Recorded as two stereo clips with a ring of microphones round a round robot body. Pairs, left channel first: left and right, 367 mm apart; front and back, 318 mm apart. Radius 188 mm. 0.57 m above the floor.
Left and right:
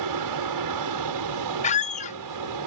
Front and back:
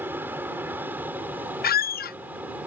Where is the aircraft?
95° right.